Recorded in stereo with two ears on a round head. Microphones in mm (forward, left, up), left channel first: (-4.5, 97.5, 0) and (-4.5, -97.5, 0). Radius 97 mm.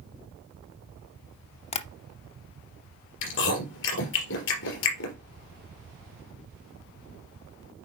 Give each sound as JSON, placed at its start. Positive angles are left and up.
{"t": 1.7, "sound": "tapping", "side_deg": 30, "distance_m": 0.6}
{"t": 3.2, "sound": "chewing", "side_deg": 60, "distance_m": 3.5}